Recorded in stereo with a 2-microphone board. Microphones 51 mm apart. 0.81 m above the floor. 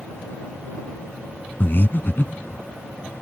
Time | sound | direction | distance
1.6 | breathing | 50° left (ahead or behind) | ?